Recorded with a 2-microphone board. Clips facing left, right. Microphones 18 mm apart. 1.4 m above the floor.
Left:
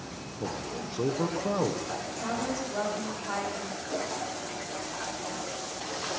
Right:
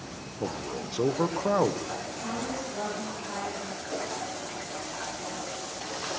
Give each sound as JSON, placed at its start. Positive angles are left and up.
{"t": 0.4, "sound": "a man speaking", "side_deg": -30, "distance_m": 0.8}
{"t": 2.1, "sound": "a woman speaking", "side_deg": 50, "distance_m": 3.5}
{"t": 3.9, "sound": "a whoosh", "side_deg": 20, "distance_m": 6.5}